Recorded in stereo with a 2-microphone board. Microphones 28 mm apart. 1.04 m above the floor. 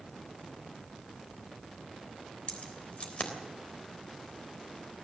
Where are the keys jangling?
50° left (ahead or behind), 3 m.